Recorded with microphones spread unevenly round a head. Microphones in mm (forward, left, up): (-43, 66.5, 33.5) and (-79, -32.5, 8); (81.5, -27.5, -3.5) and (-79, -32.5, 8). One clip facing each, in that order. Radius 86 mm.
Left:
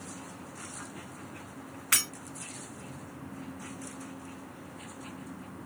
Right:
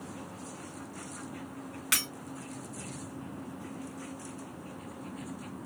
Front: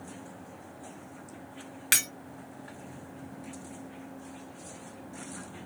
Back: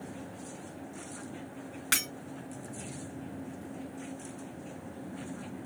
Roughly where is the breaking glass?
Ahead right.